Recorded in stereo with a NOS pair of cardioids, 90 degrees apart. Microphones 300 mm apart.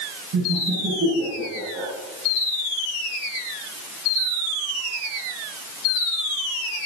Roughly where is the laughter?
Ahead right.